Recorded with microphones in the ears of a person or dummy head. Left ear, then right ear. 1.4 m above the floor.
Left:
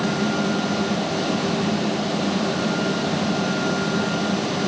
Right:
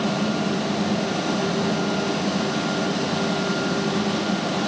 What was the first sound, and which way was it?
Only background noise.